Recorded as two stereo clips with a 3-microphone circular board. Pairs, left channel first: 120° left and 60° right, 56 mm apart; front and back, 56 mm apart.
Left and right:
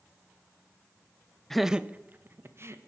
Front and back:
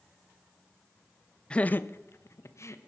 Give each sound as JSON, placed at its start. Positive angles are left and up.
{"t": 1.5, "sound": "laughter", "azimuth_deg": 45, "distance_m": 0.5}